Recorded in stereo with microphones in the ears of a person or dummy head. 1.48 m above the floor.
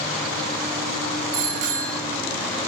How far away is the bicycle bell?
About 4.5 m.